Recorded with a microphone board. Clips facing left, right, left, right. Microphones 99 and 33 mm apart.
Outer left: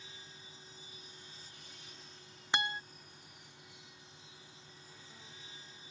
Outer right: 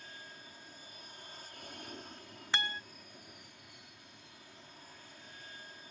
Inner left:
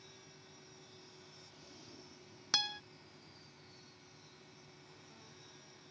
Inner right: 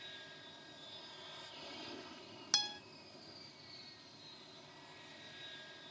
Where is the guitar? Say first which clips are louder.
Outer left 2 dB, inner left 3 dB; 15° left (ahead or behind).